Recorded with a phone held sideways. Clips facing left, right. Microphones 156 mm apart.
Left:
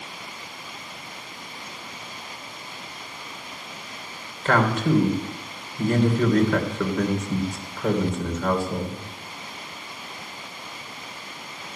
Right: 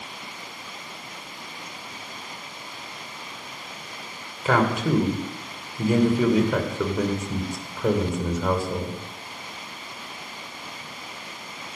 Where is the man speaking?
10° right (ahead or behind), 2.5 m.